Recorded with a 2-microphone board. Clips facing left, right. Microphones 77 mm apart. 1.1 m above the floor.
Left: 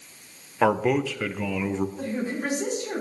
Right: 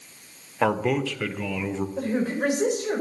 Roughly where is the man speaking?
Centre.